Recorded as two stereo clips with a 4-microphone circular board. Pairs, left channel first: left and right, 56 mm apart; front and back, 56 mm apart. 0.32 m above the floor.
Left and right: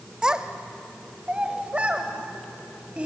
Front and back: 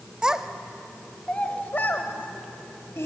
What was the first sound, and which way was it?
A child speaking, 135° right.